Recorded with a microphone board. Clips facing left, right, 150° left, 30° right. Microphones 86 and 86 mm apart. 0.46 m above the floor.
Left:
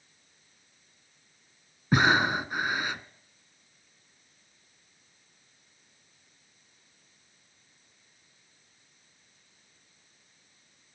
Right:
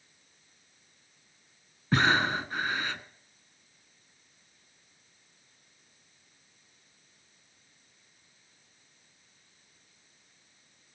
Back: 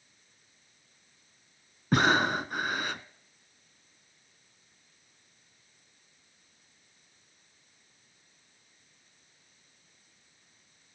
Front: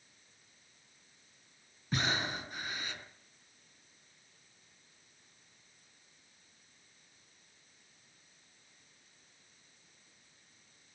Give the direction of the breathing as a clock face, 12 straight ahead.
7 o'clock.